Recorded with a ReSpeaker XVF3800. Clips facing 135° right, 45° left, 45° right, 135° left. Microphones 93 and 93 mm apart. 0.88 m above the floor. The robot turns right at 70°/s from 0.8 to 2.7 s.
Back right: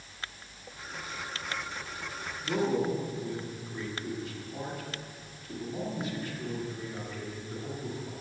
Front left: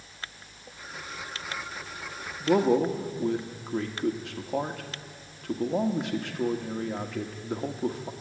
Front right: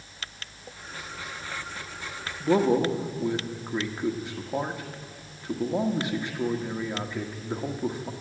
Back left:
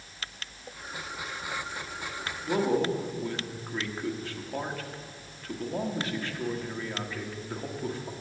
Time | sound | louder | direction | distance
2.4 | a man speaking | front left 7 dB, front right 5 dB | 5° left | 1.3 m